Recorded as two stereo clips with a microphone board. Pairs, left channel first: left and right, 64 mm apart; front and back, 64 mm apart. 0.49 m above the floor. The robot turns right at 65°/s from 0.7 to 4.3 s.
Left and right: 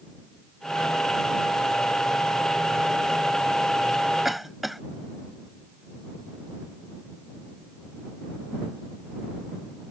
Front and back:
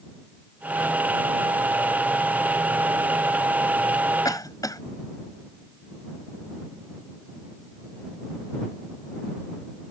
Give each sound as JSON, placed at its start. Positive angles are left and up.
{"t": 4.2, "sound": "a cough", "azimuth_deg": -5}